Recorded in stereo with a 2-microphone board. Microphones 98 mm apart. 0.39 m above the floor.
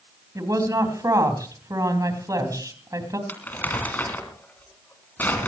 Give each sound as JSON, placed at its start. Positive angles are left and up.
{"t": 0.3, "sound": "a woman speaking", "side_deg": -35, "distance_m": 3.0}
{"t": 3.3, "sound": "crumpling", "side_deg": 20, "distance_m": 3.0}